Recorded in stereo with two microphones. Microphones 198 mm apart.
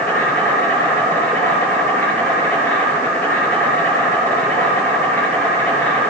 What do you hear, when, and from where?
0.0 s an insect: 10° left (ahead or behind), 3.5 m